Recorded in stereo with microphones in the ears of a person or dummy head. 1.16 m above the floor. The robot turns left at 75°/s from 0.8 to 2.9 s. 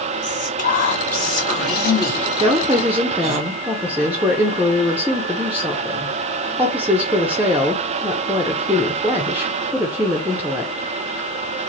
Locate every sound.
0.2 s whispering: 130° left, 2 m; by 3.4 s 30° right, 2 m
2.4 s a woman speaking: 125° right, 0.5 m; by 10.9 s 165° right, 0.5 m